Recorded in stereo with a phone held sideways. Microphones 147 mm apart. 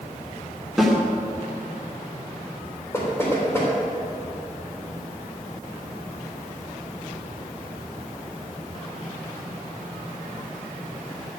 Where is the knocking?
15° left (ahead or behind), 3 m.